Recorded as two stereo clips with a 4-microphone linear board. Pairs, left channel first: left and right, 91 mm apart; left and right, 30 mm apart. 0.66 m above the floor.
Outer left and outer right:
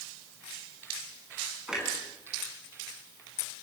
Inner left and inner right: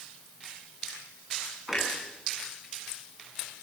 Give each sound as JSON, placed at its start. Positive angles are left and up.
{"t": 1.7, "sound": "a clunk", "side_deg": -10, "distance_m": 5.5}